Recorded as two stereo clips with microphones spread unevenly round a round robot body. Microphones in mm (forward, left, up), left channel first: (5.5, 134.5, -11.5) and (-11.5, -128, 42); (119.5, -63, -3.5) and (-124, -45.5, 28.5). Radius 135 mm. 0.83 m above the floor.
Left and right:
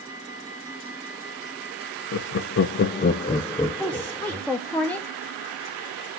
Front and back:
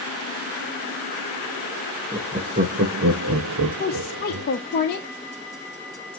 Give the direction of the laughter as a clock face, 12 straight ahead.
9 o'clock.